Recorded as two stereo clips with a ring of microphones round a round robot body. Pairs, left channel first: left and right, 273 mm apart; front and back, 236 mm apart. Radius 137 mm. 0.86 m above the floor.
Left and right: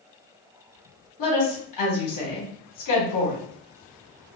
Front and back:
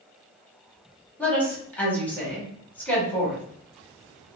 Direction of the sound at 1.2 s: 85° left.